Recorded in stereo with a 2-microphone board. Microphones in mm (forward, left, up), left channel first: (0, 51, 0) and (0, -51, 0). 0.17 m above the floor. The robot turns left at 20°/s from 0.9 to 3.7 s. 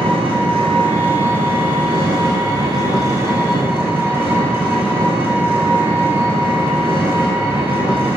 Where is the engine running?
100° right, 1.1 m; by 8.2 s 155° right, 1.1 m.